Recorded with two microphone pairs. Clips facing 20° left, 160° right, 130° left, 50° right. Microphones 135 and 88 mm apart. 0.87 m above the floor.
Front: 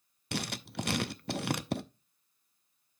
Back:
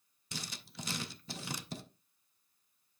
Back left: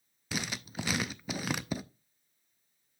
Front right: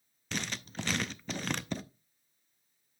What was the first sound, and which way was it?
Writing, 50° left.